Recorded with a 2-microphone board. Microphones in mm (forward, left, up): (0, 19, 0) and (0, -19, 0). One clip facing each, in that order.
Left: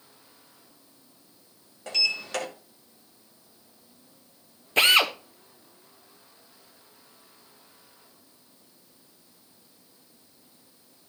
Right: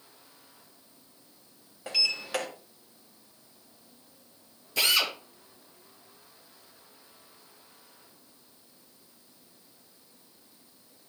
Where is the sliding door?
10° right (ahead or behind), 2.5 m.